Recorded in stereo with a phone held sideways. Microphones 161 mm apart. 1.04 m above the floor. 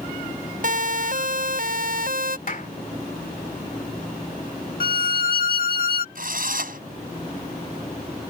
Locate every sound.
0.6 s a siren: 55° right (ahead or behind); by 2.4 s 65° right (ahead or behind)
2.5 s a clap: 55° left (ahead or behind)
4.8 s a violin: 65° left (ahead or behind)
6.2 s a drill: 60° right (ahead or behind)